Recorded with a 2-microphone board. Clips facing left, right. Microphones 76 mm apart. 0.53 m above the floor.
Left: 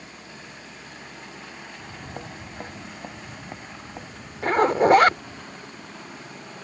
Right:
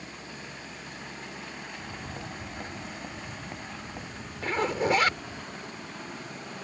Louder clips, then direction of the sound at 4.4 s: Left 9 dB; 50° left (ahead or behind).